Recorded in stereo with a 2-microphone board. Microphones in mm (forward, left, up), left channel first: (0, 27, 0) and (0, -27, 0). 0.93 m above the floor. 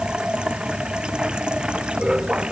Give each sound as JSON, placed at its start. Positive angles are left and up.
{"t": 0.0, "sound": "running water", "side_deg": -15}